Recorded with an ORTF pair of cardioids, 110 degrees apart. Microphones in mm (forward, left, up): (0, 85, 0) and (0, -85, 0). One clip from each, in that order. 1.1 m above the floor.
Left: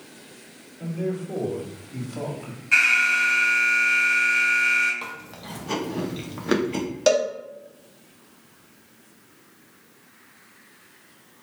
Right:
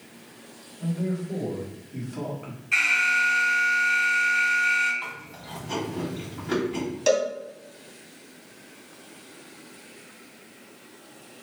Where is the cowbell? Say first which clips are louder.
Left 2 dB; 35° left, 1.3 m.